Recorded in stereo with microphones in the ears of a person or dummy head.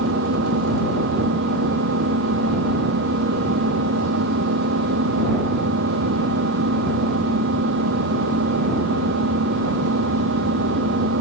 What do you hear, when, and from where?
0.0 s an engine running: 70° right (ahead or behind)